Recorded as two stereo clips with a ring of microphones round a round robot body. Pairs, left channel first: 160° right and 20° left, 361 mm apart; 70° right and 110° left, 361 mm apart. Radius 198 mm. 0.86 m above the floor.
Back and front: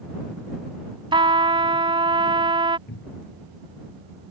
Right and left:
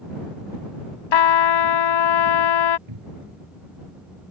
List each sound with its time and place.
1.1 s a trumpet: 55° right
2.9 s a cupboard door: 140° left